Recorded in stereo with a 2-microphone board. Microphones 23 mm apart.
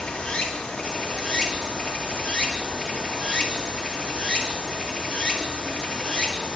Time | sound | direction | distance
0.0 | running water | 60° left (ahead or behind) | 1.8 m